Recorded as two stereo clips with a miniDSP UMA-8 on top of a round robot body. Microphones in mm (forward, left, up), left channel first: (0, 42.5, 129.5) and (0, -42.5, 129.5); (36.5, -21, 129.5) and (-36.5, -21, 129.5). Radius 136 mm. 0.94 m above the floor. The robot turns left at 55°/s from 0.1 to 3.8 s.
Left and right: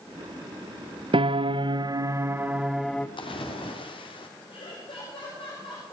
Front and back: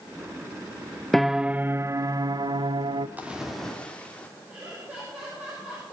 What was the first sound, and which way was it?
A piano, 85° right.